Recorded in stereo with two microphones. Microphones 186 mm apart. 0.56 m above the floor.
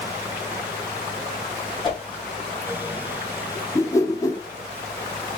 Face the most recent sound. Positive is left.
turn(degrees=20)  # may be behind; listen again after turning